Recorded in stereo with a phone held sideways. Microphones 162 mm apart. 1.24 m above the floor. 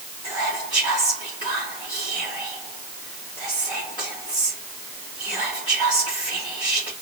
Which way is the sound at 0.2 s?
30° left (ahead or behind).